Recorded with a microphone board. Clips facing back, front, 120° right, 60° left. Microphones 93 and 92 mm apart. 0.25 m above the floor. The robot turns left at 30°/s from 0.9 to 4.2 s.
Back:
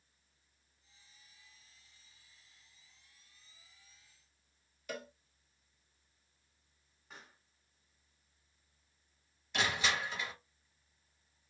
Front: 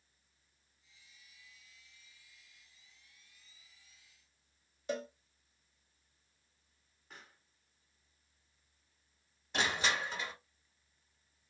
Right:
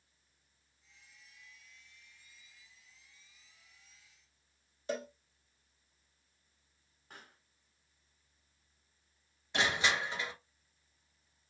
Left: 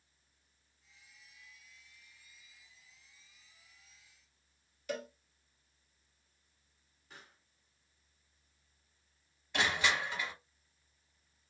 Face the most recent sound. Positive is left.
turn(degrees=-55)